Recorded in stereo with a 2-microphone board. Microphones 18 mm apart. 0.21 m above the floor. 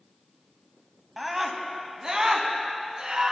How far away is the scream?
About 1.1 m.